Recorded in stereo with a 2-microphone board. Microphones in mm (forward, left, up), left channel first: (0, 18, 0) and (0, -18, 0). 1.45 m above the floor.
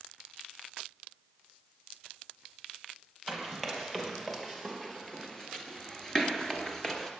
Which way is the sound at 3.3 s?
10° left (ahead or behind).